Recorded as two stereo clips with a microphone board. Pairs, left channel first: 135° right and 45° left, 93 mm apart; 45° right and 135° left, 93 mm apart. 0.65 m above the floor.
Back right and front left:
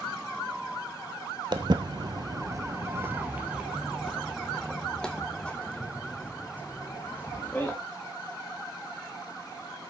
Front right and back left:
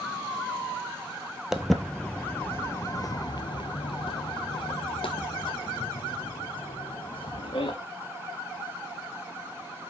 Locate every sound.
1.5 s footsteps: 55° left, 1.0 m; by 7.8 s 65° right, 3 m